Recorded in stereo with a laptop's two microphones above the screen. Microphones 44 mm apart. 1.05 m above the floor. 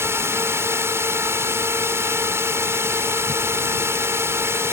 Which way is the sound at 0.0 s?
75° right (ahead or behind).